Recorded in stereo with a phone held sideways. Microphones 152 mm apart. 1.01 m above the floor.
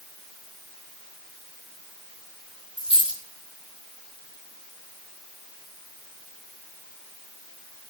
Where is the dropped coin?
35° right (ahead or behind), 1.4 m.